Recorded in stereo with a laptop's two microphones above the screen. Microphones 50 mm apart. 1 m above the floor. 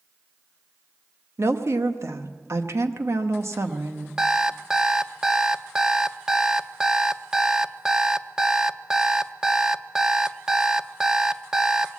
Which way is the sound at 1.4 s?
65° right (ahead or behind).